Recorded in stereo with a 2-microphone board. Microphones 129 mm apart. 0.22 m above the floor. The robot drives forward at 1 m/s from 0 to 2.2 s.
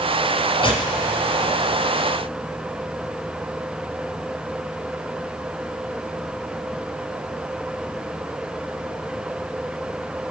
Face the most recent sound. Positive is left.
turn(degrees=25)  # may be behind; listen again after turning